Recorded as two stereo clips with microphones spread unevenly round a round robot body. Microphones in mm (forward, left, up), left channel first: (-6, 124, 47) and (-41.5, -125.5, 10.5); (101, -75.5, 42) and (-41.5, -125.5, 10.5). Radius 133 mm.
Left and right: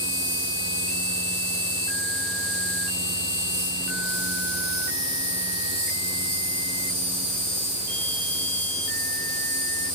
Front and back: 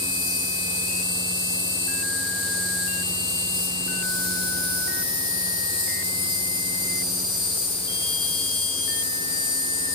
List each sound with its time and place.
0.0 s an insect: 100° right, 7 m